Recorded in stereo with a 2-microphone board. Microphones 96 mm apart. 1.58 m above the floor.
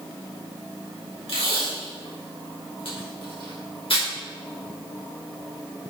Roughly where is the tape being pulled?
Left.